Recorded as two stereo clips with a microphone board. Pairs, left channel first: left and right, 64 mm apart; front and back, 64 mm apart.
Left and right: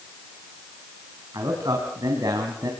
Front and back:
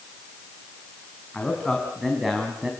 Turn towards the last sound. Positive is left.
turn(degrees=-105)